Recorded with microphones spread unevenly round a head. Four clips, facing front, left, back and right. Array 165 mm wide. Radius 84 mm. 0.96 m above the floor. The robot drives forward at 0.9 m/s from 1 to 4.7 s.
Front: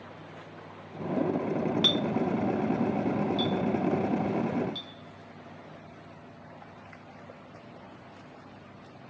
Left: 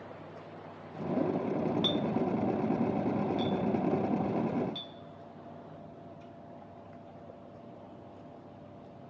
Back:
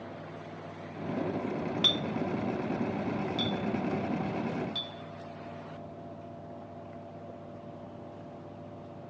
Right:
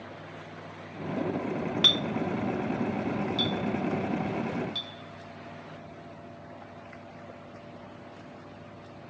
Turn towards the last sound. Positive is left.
turn(degrees=-170)